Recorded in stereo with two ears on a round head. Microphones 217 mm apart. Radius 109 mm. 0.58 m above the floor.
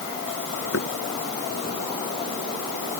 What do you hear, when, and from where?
0.7 s knocking: 60° left (ahead or behind)